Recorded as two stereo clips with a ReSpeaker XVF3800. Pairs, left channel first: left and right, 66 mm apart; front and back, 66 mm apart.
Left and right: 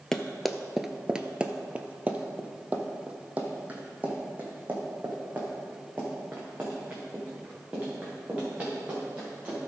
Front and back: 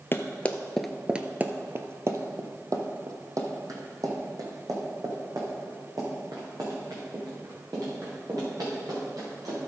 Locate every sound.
0.1 s running footsteps: 10° left, 0.8 m; by 9.6 s 160° right, 6 m